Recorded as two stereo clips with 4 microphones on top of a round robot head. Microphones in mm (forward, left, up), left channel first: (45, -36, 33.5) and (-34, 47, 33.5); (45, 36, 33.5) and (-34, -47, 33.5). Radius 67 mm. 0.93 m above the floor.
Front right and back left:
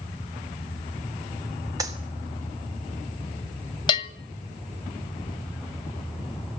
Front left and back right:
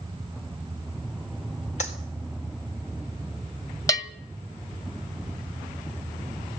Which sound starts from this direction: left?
A clap, at 1.8 s.